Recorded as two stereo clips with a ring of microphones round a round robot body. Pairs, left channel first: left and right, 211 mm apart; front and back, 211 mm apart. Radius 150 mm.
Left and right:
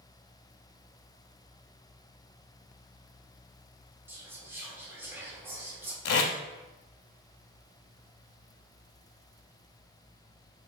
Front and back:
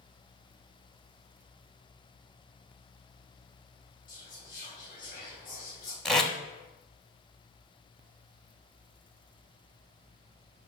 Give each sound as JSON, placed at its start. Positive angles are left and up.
{"t": 4.1, "sound": "whispering", "azimuth_deg": -15, "distance_m": 1.2}
{"t": 6.0, "sound": "tape being pulled", "azimuth_deg": 90, "distance_m": 0.8}